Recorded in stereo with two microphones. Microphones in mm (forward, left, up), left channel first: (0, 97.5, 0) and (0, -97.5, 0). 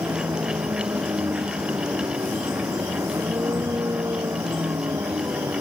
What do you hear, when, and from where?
0.0 s a vehicle: 15° right (ahead or behind)